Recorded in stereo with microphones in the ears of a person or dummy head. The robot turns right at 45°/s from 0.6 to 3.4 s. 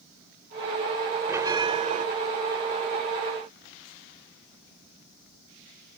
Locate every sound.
1.3 s a bell: 165° right; by 2.1 s 130° right